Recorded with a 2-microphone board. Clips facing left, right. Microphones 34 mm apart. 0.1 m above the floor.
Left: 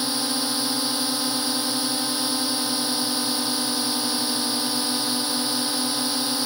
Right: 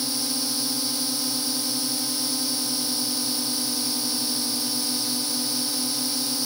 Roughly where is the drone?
Left.